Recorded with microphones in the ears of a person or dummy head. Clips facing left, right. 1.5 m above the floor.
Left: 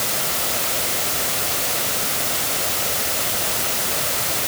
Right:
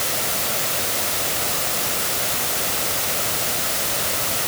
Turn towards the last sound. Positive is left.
No sound to turn to.